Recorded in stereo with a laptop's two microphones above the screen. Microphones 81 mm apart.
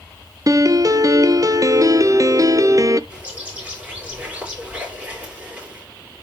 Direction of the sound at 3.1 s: 20° right (ahead or behind).